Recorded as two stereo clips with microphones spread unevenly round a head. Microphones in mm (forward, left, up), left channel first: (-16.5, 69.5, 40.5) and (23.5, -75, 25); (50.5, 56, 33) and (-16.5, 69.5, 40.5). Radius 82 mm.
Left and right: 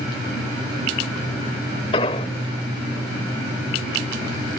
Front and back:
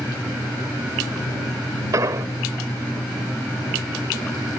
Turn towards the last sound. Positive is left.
turn(degrees=150)